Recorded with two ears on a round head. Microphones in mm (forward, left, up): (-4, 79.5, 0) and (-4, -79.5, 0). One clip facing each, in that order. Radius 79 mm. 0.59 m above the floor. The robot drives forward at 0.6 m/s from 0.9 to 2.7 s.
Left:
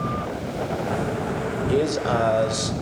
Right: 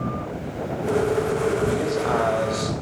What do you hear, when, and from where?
1.7 s a man speaking: 35° left (ahead or behind), 3 m; by 2.8 s 30° left (ahead or behind), 3.5 m